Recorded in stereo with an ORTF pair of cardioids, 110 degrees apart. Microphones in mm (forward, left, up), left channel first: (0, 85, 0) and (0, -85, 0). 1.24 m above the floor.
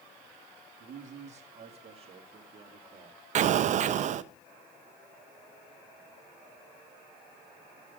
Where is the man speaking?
45° right, 1.5 m; by 3.2 s 30° right, 2.5 m.